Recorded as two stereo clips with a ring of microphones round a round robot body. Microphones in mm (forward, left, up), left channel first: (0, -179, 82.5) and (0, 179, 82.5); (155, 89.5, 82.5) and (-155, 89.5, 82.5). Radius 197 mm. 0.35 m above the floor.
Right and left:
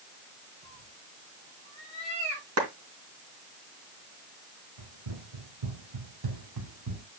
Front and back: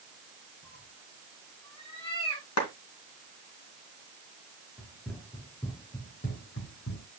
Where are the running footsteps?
90° left, 4.5 m; by 7.0 s 40° left, 3 m.